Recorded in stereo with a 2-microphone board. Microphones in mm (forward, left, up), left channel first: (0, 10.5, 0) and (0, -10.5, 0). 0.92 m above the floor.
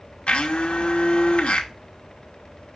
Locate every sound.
0.3 s a blender: 75° left (ahead or behind), 0.8 m